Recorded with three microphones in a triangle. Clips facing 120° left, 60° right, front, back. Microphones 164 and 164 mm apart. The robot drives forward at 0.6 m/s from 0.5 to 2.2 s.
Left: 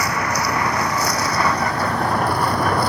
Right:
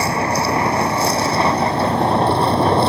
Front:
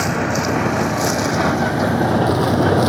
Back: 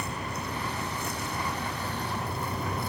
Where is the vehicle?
Straight ahead.